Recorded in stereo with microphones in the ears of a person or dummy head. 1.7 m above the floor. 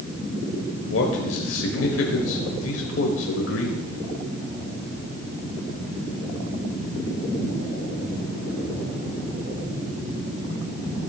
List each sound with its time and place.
0.9 s a man speaking: 85° left, 1.1 m